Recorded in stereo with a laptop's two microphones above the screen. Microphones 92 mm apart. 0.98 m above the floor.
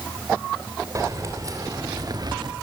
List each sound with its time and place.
0.9 s keys jangling: 40° right (ahead or behind), 3 m; by 2.5 s 55° right (ahead or behind), 1.1 m